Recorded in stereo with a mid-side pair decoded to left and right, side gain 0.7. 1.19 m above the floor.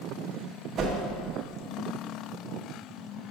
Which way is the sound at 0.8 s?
45° right.